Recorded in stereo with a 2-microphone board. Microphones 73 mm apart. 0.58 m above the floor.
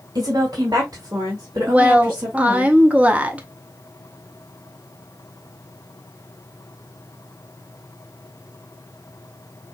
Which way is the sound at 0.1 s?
60° right (ahead or behind).